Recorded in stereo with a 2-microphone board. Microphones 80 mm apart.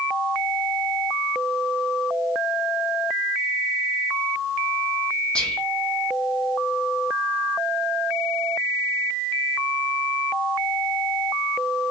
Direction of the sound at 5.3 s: 10° left (ahead or behind).